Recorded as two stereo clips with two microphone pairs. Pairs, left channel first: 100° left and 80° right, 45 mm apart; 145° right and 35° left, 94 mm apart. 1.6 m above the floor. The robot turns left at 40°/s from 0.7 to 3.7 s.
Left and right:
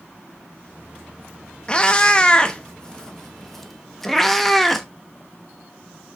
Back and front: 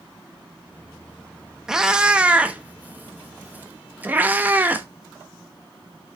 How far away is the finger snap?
I don't hear a finger snap.